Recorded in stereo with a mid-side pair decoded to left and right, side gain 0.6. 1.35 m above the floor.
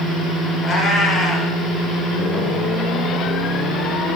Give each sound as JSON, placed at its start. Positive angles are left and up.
{"t": 0.6, "sound": "a cat meowing", "azimuth_deg": 25, "distance_m": 2.5}